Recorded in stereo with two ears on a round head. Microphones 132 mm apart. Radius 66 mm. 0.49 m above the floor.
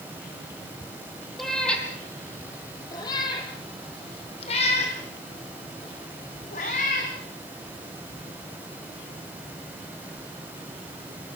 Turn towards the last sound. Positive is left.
turn(degrees=60)  # may be behind; listen again after turning